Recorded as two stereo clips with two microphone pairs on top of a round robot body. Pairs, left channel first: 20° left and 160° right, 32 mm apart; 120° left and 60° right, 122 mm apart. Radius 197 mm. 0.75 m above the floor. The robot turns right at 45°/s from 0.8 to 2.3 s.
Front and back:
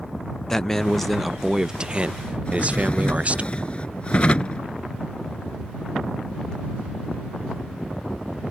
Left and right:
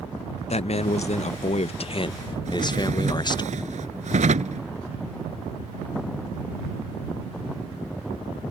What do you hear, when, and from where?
0.5 s a man speaking: 100° left; by 3.5 s 170° left
2.5 s a drawer: 35° right